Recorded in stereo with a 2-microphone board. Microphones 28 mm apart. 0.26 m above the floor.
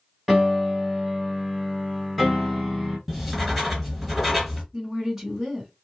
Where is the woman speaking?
10° right (ahead or behind), 1.6 m.